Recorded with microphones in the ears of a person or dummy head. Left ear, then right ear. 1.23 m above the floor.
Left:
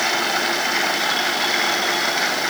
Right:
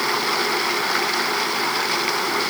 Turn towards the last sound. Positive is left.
No sound to turn to.